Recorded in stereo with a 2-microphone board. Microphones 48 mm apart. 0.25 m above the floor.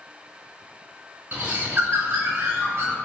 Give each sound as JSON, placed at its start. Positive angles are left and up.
{"t": 1.3, "sound": "a bird", "side_deg": -50, "distance_m": 0.7}